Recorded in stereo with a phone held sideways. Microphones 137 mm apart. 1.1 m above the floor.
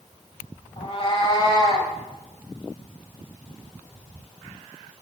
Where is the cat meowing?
45° left (ahead or behind), 1.2 m; by 1.9 s 30° left (ahead or behind), 1.5 m.